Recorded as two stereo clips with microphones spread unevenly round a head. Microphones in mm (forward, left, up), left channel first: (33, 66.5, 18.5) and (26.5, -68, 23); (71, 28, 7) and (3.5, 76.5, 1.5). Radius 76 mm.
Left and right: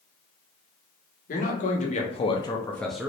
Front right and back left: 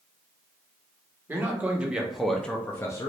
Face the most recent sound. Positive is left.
turn(degrees=-15)